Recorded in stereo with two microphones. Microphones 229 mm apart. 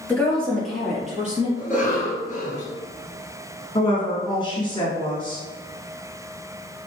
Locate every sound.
0.1 s a woman speaking: 10° left (ahead or behind), 1.8 m; by 1.5 s 5° right (ahead or behind), 2.5 m
1.6 s a cough: 35° left (ahead or behind), 1.5 m
3.8 s a woman speaking: 20° left (ahead or behind), 1.2 m